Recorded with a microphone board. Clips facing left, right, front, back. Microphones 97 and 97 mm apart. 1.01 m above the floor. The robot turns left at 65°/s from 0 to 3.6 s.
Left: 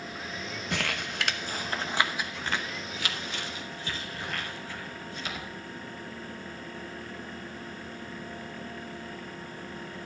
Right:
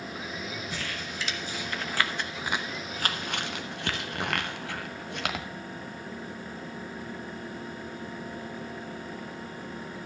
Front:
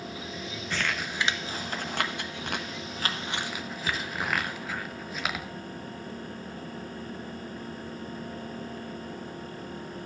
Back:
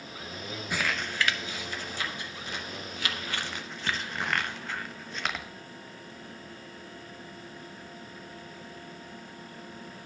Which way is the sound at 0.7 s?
105° left.